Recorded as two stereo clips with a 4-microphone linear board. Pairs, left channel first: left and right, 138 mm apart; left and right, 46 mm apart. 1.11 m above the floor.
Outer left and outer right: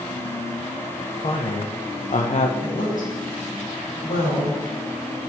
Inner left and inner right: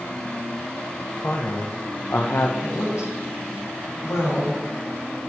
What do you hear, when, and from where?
1.2 s a woman speaking: 45° left (ahead or behind), 1.2 m; by 2.5 s 55° left (ahead or behind), 0.8 m
2.6 s a woman speaking: 80° left, 4.5 m